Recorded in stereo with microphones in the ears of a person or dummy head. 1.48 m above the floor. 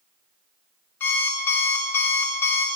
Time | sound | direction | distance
1.0 | an alarm clock | 10° left (ahead or behind) | 0.5 m